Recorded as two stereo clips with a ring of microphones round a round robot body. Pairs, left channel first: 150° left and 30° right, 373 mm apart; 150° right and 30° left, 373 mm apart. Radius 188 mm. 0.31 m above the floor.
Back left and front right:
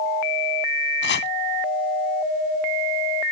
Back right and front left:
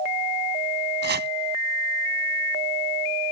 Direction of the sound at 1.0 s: 90° left.